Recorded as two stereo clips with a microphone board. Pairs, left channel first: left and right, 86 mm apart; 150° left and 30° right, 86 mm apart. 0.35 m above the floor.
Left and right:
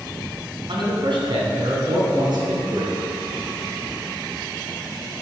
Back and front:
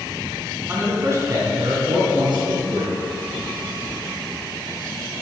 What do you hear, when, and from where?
0.7 s a man speaking: 95° right, 3 m; by 3.0 s 45° right, 4.5 m